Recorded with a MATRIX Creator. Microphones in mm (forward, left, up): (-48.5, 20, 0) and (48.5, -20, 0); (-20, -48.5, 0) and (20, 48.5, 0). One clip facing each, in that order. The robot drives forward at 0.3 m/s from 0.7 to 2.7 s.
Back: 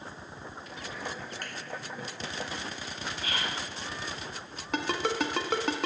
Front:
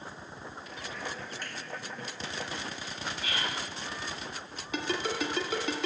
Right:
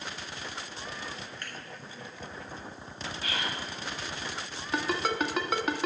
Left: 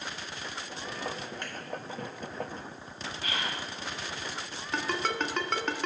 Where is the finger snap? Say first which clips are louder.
Back 1 dB, left 3 dB; 130° left, 2.5 m; by 1.5 s 135° left, 2.5 m.